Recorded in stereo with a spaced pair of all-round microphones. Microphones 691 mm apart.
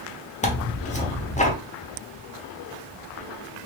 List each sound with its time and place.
0.4 s tearing paper: 10° left (ahead or behind), 0.8 m